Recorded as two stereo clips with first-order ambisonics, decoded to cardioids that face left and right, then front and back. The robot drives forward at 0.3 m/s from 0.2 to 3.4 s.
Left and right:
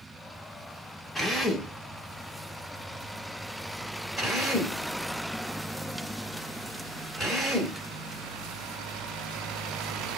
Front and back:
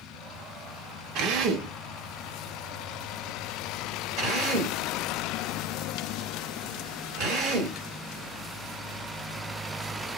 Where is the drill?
175° left, 0.7 m.